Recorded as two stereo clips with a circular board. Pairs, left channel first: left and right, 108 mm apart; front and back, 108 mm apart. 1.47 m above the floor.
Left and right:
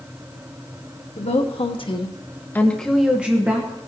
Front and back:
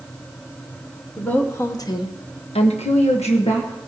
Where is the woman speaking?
75° left, 1.5 m; by 3.8 s 25° right, 1.8 m.